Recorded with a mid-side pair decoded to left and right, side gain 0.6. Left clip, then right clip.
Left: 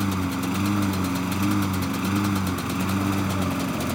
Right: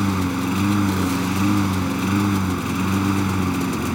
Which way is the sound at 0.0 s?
25° right.